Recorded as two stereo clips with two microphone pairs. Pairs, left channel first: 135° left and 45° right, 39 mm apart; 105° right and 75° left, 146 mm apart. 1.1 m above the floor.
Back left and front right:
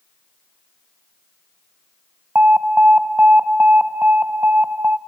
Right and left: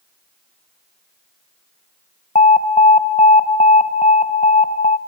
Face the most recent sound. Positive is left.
turn(degrees=-75)